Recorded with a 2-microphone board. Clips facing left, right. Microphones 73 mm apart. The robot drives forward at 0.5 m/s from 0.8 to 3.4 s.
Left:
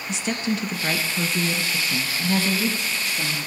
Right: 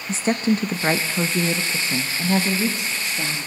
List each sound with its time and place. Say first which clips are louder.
0.1 s a woman speaking: right 5 dB; 35° right (ahead or behind), 0.5 m; by 3.5 s 15° right (ahead or behind), 1.4 m